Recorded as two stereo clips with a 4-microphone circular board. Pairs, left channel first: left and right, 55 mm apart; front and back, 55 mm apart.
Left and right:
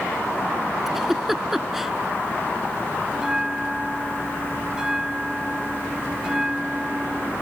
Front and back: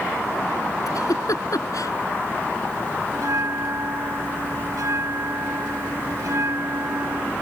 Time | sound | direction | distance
0.9 | a giggle | 5° right | ?
3.1 | a bell | 170° right | ?